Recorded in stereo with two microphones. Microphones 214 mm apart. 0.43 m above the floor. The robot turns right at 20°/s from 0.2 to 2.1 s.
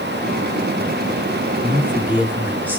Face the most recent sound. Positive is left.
turn(degrees=-10)  # may be behind; listen again after turning